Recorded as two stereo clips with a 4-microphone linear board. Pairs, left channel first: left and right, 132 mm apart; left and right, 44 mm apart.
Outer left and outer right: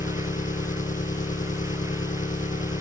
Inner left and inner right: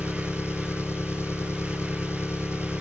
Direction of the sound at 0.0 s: 65° left (ahead or behind).